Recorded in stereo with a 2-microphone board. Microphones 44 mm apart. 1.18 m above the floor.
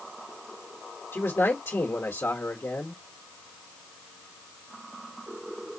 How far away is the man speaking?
About 1.3 m.